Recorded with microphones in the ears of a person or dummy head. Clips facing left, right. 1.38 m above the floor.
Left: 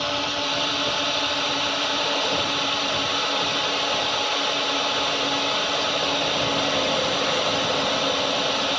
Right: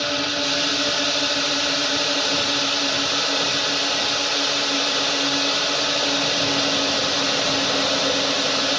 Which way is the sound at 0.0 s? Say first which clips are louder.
Right 2 dB; 25° right (ahead or behind).